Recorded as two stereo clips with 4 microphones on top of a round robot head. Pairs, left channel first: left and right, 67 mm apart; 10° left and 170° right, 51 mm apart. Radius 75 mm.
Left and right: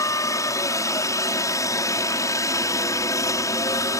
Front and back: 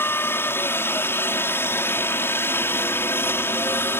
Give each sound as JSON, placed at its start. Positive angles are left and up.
{"t": 0.0, "sound": "a helicopter", "azimuth_deg": 50}